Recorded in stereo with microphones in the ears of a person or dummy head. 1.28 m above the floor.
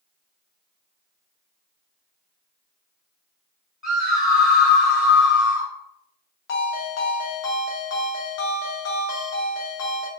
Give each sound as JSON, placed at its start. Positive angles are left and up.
{"t": 3.8, "sound": "a scream", "side_deg": -10, "distance_m": 1.0}
{"t": 6.5, "sound": "a ringtone", "side_deg": 80, "distance_m": 0.8}